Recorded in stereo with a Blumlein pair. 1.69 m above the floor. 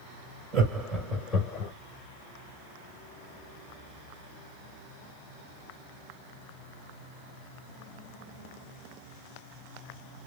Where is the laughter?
25° right, 1.9 m; by 1.7 s 35° left, 1.6 m.